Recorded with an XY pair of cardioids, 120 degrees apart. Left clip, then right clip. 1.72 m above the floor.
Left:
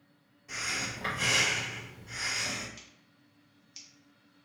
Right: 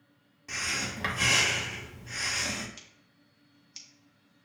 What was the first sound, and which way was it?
Breathing, 55° right.